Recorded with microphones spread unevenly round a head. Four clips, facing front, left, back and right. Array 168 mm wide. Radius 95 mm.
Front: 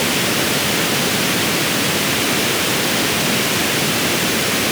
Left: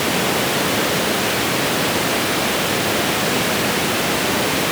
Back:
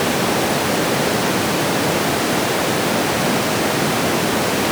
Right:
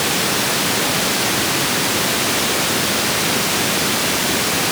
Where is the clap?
I don't hear a clap.